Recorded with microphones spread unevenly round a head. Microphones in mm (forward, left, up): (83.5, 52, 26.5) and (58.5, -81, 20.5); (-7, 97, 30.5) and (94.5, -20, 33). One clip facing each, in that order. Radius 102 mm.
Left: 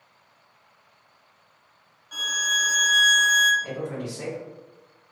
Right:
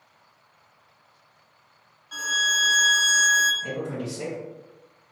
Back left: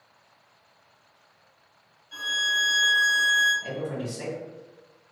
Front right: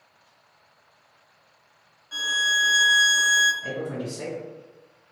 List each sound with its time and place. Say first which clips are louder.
2.1 s a violin: right 2 dB, front right 3 dB; 15° right, 0.7 m
3.6 s a man speaking: right 1 dB, front right 1 dB; 170° right, 1.2 m